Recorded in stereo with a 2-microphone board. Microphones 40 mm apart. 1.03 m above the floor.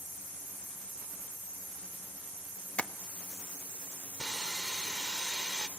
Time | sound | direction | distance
2.8 | tapping | 30° left (ahead or behind) | 1.0 m
4.2 | sawing | 15° right (ahead or behind) | 1.7 m